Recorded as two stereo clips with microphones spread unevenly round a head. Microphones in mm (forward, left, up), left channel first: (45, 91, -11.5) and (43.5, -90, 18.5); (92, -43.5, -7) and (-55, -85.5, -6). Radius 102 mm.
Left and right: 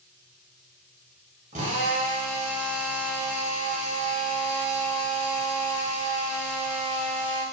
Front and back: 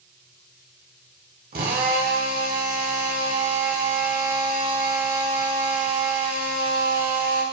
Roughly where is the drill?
Behind right.